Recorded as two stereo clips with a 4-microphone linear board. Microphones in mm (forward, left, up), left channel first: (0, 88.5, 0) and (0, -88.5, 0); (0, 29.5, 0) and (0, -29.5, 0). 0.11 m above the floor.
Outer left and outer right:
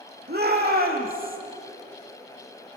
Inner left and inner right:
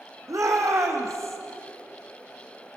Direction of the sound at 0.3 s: 60° right (ahead or behind).